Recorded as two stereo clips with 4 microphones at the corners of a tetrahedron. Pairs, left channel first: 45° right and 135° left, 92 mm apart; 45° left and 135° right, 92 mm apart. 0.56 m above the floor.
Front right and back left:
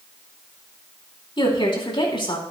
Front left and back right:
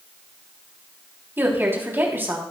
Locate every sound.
1.4 s a woman speaking: 70° right, 3.5 m